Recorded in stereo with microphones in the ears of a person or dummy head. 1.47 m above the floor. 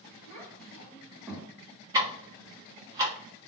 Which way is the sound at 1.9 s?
20° right (ahead or behind).